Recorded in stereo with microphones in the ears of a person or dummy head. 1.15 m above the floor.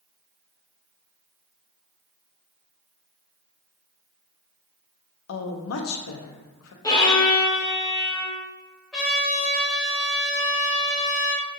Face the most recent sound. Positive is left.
turn(degrees=0)  # may be behind; listen again after turning